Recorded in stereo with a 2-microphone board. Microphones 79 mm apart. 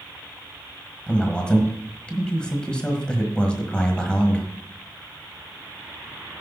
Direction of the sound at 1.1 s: 10° left (ahead or behind).